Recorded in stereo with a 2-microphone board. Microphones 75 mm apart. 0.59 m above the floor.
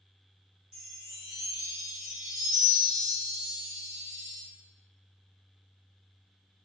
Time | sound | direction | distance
0.7 | a chime | 10° right (ahead or behind) | 1.2 m